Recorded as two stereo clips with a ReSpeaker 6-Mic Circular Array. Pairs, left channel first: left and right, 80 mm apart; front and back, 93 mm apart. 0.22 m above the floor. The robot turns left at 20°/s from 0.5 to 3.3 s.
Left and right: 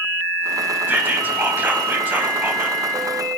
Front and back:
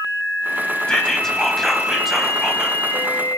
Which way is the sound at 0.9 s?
70° right.